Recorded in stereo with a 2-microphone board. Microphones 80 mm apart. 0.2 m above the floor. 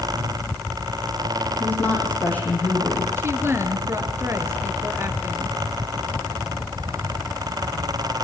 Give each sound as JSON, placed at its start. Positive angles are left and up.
{"t": 1.6, "sound": "a woman speaking", "side_deg": 25, "distance_m": 10.0}
{"t": 3.2, "sound": "a woman speaking", "side_deg": -35, "distance_m": 3.5}